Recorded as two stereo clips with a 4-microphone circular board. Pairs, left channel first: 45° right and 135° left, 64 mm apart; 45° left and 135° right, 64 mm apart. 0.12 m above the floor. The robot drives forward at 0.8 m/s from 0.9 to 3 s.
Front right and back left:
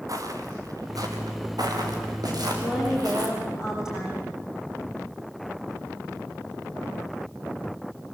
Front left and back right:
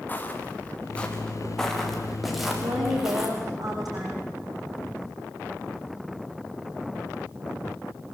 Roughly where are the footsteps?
Left.